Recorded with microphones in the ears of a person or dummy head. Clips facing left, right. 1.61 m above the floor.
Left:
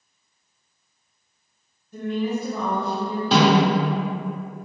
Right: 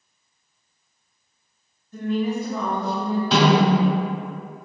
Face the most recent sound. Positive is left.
turn(degrees=35)  # may be behind; listen again after turning